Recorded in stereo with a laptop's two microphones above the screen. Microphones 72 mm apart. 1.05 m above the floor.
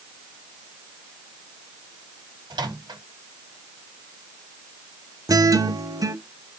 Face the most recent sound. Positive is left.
turn(degrees=-55)  # may be behind; listen again after turning